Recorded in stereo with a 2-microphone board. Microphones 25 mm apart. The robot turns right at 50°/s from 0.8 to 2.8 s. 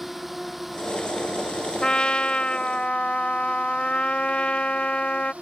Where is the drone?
175° right; by 5.4 s 75° right.